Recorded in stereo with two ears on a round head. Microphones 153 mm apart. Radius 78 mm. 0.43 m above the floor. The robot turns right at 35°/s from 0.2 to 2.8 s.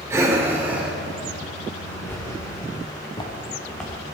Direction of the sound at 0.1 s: 15° right (ahead or behind).